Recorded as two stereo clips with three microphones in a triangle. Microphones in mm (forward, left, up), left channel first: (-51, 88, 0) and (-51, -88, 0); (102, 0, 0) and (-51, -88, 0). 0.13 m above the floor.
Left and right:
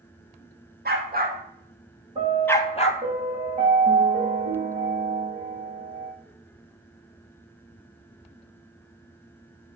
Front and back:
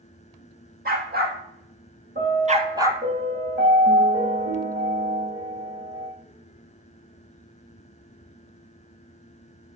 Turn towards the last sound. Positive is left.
turn(degrees=-140)